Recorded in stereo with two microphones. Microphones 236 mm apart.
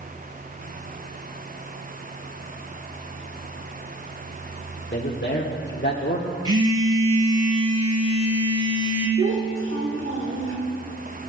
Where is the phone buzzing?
75° right (ahead or behind), 1.9 m.